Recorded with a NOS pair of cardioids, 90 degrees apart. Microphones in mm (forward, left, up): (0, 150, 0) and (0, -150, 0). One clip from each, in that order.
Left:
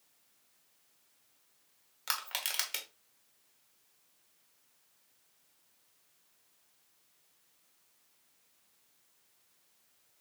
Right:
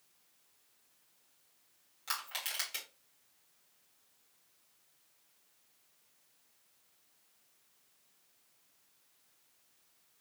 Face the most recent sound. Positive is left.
turn(degrees=45)